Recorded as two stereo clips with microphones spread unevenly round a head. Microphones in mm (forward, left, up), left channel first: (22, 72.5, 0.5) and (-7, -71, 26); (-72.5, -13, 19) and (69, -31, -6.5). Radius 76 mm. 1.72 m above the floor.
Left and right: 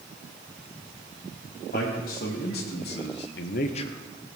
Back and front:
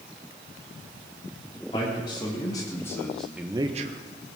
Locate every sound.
1.7 s a man speaking: 115° left, 3.5 m; by 4.0 s straight ahead, 0.9 m